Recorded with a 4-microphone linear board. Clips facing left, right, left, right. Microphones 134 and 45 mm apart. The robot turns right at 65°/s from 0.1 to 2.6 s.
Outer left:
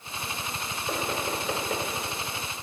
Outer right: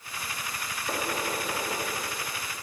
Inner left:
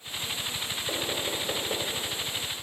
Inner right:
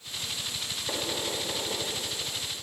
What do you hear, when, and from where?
0.9 s knocking: 10° left (ahead or behind), 1.7 m; by 1.9 s 50° left (ahead or behind), 1.7 m